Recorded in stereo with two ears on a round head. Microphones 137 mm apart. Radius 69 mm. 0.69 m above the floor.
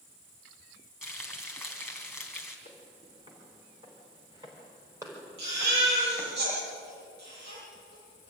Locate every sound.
1.0 s frying: 5° right (ahead or behind), 3 m
2.6 s footsteps: 35° right (ahead or behind), 6 m; by 6.4 s 5° right (ahead or behind), 4 m
5.4 s a baby crying: 70° right (ahead or behind), 10 m